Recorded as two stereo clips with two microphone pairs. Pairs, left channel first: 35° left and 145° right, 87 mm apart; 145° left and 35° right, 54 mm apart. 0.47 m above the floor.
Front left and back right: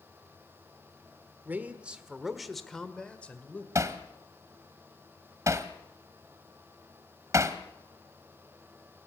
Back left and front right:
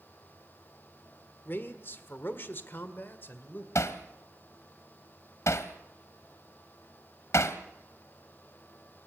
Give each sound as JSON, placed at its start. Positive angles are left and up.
{"t": 1.4, "sound": "a man speaking", "azimuth_deg": 160, "distance_m": 1.6}
{"t": 3.8, "sound": "hammering", "azimuth_deg": 160, "distance_m": 1.3}